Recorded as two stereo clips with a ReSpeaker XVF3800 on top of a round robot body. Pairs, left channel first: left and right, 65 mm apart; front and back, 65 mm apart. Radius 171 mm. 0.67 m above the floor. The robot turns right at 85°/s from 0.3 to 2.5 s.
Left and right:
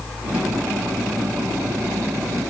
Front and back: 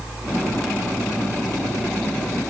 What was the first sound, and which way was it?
Only background noise.